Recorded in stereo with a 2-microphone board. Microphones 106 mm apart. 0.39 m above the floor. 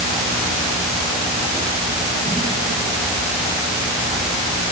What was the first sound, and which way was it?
Only background noise.